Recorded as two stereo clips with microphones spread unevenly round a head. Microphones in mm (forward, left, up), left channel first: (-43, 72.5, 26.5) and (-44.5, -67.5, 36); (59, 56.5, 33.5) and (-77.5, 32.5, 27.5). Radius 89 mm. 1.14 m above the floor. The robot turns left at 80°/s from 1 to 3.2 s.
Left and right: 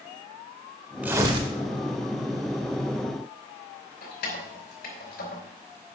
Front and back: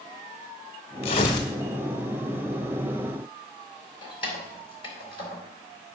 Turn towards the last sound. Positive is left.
turn(degrees=65)